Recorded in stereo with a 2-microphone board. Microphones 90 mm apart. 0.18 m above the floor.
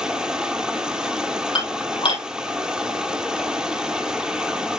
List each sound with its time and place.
0.0 s running water: 10° right (ahead or behind), 1.3 m
1.6 s dishes clattering: 75° left (ahead or behind), 3.5 m